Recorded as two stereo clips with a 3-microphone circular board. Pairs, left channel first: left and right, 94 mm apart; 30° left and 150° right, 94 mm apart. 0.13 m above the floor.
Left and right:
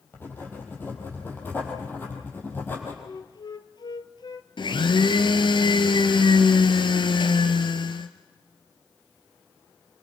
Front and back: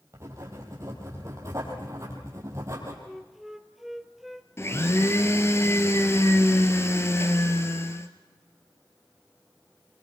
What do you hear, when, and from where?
0.1 s writing: 155° left, 5.5 m
3.0 s a flute: 125° left, 1.0 m
4.6 s a blender: 85° left, 1.5 m